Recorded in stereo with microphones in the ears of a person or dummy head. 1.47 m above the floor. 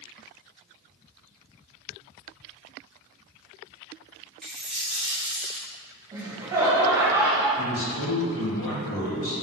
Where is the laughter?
15° right (ahead or behind), 1.0 m.